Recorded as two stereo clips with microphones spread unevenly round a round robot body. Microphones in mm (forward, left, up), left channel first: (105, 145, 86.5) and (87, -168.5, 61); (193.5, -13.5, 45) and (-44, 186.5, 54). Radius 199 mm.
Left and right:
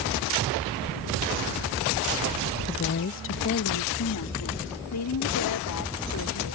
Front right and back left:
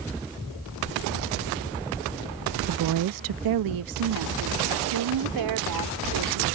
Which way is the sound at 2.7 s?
150° left.